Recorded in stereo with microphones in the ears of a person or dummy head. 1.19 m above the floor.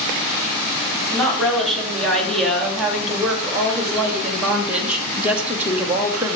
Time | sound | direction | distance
1.1 | a woman speaking | centre (ahead or behind) | 3.5 m